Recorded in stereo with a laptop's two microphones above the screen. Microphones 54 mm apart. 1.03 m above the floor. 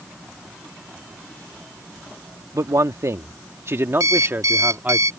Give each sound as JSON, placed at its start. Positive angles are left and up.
{"t": 2.5, "sound": "a man speaking", "side_deg": -80}
{"t": 4.0, "sound": "an alarm clock", "side_deg": -80}